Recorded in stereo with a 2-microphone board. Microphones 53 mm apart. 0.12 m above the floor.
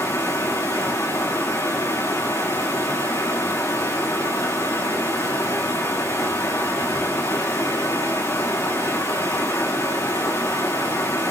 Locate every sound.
0.0 s running water: 80° left, 6 m